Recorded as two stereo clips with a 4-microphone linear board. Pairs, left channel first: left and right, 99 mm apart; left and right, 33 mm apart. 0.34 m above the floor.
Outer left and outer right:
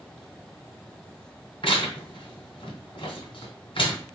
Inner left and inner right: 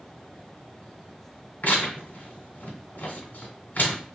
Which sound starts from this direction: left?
Tearing paper, at 1.6 s.